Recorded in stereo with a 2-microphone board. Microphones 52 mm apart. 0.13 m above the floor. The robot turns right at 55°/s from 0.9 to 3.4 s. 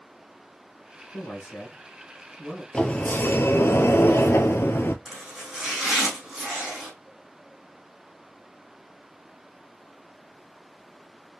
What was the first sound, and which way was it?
A man speaking, 95° left.